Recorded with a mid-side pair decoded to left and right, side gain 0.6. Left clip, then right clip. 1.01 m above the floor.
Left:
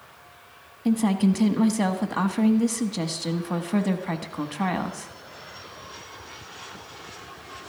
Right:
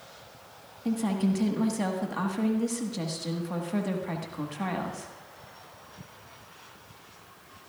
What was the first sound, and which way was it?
A woman speaking, 30° left.